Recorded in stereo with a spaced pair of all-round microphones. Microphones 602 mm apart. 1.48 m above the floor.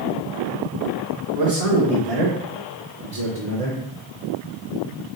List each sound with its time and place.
1.4 s a man speaking: 75° right (ahead or behind), 1.5 m; by 3.8 s 10° right (ahead or behind), 0.8 m